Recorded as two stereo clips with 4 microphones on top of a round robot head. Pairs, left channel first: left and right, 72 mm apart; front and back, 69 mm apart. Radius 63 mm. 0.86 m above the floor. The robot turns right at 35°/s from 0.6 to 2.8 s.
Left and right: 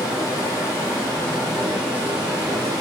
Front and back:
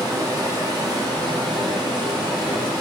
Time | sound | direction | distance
0.0 | running water | 150° left | 0.7 m